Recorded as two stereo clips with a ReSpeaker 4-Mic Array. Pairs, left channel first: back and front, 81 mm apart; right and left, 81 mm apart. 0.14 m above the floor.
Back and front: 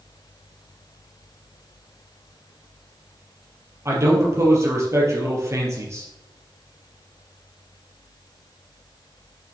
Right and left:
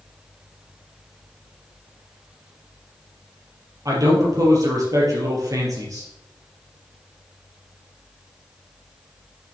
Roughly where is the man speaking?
Ahead left.